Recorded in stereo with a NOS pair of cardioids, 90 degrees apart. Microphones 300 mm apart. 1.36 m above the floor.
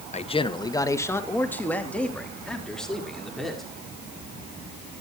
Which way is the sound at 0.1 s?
25° left.